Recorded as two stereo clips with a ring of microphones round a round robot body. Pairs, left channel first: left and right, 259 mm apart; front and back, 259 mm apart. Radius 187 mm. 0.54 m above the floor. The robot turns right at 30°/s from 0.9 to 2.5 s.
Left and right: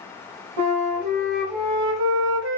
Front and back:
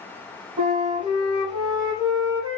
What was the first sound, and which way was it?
A flute, 105° right.